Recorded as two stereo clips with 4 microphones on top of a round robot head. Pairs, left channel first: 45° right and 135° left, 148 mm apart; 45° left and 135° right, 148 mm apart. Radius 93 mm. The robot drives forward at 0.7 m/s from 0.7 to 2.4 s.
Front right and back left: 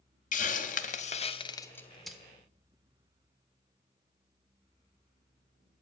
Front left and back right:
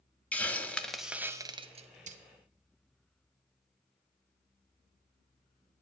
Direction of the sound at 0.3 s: 35° right.